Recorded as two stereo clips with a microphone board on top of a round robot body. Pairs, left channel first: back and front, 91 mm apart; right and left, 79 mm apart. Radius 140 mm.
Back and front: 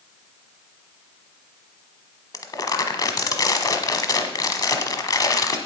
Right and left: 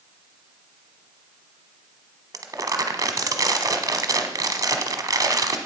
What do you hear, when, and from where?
2.3 s crumpling: 135° left, 1.1 m